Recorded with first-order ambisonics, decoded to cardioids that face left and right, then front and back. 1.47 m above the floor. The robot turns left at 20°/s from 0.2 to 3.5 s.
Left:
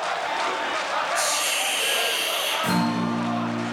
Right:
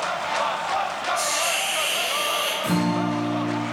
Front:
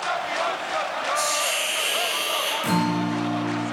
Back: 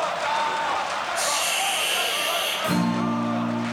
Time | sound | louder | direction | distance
1.1 | a hiss | even, even | 50° left | 0.7 m
2.6 | a guitar | even, front 1 dB | 15° left | 0.9 m